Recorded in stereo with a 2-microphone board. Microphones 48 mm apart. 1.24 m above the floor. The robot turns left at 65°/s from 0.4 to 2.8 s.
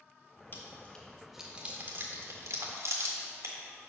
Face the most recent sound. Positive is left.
turn(degrees=-70)  # may be behind; listen again after turning